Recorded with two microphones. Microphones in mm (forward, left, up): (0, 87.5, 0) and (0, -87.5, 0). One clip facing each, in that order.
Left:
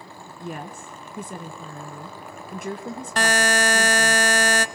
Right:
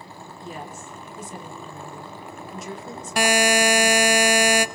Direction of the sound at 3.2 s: 10° right (ahead or behind).